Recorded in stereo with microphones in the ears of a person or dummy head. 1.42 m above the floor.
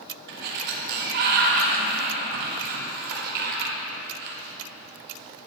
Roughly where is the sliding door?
Right.